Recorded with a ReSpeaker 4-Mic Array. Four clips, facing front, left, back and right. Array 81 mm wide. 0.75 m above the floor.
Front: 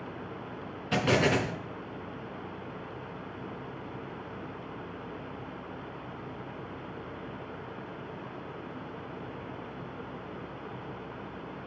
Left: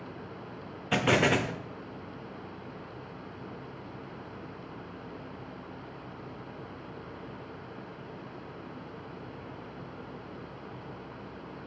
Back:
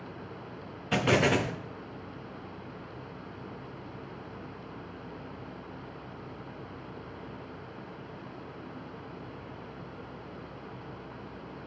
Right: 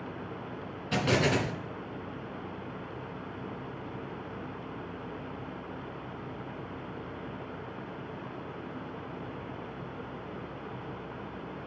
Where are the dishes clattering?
I don't hear dishes clattering.